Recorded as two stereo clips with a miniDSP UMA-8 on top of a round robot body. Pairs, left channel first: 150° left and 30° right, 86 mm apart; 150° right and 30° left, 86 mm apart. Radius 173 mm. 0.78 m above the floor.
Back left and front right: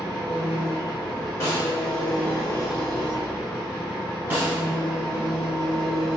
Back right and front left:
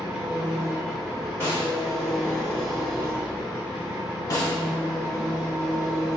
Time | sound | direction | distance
0.0 | an engine running | 115° left | 1.6 m
1.4 | a snare drum | 90° left | 1.8 m
4.3 | a snare drum | 100° right | 0.6 m